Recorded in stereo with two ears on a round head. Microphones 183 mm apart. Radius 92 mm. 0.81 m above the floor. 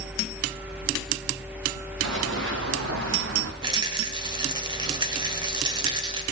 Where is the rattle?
20° right (ahead or behind), 1.3 m.